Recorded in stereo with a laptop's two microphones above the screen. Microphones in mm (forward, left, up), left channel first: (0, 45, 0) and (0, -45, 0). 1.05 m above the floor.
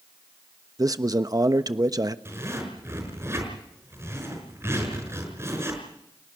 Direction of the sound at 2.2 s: 30° right (ahead or behind).